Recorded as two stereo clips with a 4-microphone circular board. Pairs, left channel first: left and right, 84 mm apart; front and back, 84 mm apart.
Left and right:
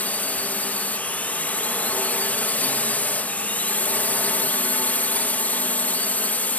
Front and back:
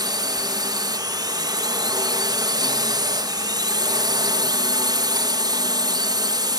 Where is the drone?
160° left.